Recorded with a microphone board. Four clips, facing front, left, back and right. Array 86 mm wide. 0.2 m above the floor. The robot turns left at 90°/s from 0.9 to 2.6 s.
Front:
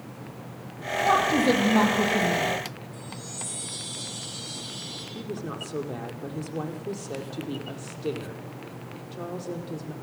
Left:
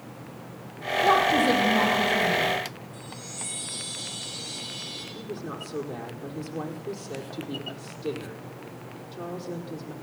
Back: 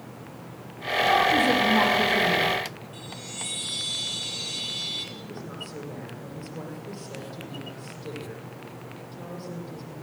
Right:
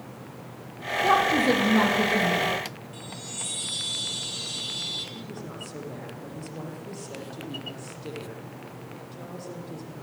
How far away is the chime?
About 6 m.